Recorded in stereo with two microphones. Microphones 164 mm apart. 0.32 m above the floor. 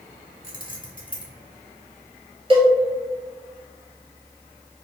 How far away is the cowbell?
About 1.2 m.